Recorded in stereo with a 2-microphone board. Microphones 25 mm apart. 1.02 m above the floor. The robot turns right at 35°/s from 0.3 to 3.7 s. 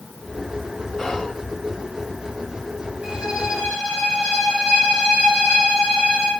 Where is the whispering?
20° left (ahead or behind), 1.6 m; by 1.4 s 30° left (ahead or behind), 1.6 m.